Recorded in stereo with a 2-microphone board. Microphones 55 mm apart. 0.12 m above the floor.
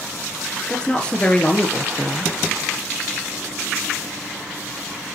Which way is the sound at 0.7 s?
15° left (ahead or behind).